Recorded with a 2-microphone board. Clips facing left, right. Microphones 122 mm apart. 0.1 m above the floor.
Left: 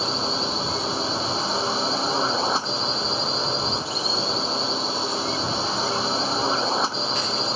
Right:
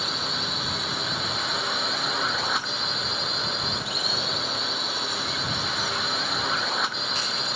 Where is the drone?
30° left (ahead or behind).